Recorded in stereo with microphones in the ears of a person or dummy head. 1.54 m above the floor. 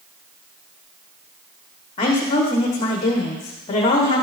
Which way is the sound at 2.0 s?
30° left (ahead or behind).